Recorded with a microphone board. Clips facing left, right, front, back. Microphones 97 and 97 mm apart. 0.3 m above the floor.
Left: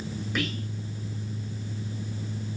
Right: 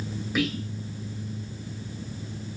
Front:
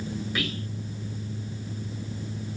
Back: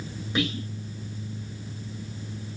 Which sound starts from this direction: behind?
Whispering, at 0.3 s.